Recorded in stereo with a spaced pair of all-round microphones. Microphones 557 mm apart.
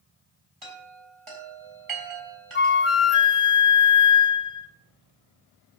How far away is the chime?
About 4 m.